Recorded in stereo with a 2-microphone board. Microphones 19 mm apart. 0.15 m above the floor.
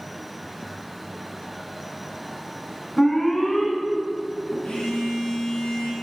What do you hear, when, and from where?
3.0 s an alarm: 15° left (ahead or behind), 1.8 m
4.6 s a phone buzzing: 70° left (ahead or behind), 2 m